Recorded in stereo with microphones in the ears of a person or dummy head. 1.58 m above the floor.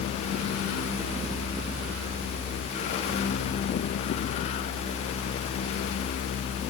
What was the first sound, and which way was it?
Only background noise.